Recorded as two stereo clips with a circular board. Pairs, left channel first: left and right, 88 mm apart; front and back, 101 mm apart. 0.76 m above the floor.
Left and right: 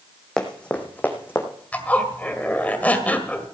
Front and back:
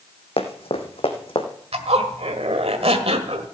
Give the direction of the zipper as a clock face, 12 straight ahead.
7 o'clock.